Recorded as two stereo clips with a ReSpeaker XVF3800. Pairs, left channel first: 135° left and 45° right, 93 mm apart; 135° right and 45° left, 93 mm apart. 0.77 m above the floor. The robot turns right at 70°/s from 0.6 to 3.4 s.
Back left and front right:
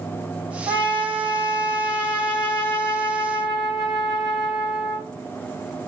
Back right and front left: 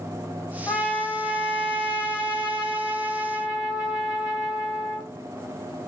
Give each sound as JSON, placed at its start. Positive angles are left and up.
{"t": 0.7, "sound": "a trumpet", "azimuth_deg": -70, "distance_m": 1.3}